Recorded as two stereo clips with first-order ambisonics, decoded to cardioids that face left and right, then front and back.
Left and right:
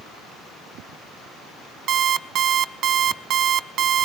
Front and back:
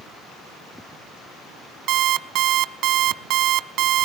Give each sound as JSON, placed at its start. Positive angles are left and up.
{"t": 1.9, "sound": "an alarm clock", "azimuth_deg": -140, "distance_m": 0.6}